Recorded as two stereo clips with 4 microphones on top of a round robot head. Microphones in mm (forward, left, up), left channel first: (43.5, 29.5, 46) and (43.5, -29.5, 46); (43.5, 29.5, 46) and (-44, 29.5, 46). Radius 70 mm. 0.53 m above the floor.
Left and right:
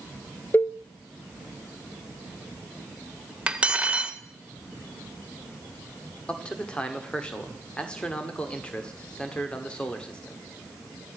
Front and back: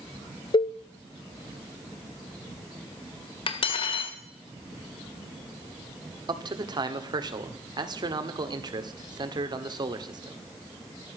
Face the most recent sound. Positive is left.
turn(degrees=160)